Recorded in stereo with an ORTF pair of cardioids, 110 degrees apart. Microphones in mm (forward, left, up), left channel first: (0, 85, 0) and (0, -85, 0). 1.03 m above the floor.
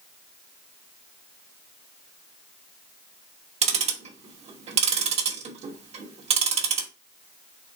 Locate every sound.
3.6 s ticking: 40° right, 1.0 m